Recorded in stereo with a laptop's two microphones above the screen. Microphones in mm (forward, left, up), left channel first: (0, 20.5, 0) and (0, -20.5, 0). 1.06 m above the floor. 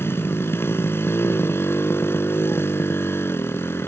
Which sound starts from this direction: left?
A motorcycle, at 0.0 s.